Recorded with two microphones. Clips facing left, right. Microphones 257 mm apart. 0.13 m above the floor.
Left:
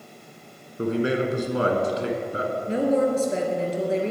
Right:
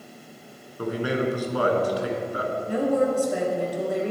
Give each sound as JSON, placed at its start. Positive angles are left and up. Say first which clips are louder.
{"t": 0.8, "sound": "a man speaking", "louder": "left 2 dB", "side_deg": 25, "distance_m": 1.4}
{"t": 2.7, "sound": "a woman speaking", "louder": "left 1 dB", "side_deg": 25, "distance_m": 1.9}